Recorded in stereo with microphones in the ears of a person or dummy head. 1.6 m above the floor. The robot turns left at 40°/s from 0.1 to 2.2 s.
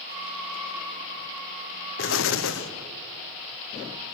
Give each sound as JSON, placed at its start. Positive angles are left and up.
{"t": 2.0, "sound": "an explosion", "side_deg": 60, "distance_m": 1.1}